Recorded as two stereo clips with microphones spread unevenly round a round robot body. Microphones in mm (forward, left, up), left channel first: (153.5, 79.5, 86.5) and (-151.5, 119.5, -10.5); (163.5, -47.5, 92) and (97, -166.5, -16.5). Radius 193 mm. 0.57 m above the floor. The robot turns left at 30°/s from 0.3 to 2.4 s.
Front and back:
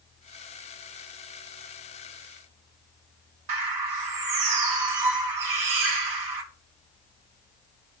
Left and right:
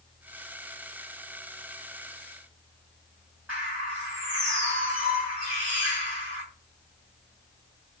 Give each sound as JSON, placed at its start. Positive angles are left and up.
{"t": 3.5, "sound": "a bird", "azimuth_deg": 165, "distance_m": 1.6}